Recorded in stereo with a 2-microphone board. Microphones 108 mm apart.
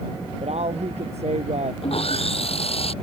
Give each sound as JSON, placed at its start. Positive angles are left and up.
{"t": 0.4, "sound": "a woman speaking", "side_deg": -80}
{"t": 1.8, "sound": "sawing", "side_deg": 65}